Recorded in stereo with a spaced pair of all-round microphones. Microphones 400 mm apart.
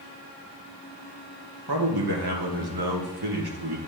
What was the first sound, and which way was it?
A man speaking, 70° right (ahead or behind).